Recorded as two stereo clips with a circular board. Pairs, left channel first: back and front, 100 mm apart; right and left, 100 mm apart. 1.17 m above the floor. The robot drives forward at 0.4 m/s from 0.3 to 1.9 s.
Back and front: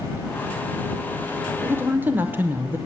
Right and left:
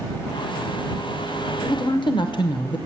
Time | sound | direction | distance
1.6 | a woman speaking | 55° right | 0.7 m